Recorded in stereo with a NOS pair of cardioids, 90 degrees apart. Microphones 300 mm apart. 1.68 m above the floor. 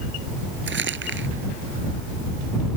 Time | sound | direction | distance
0.7 | crumpling | 40° right | ?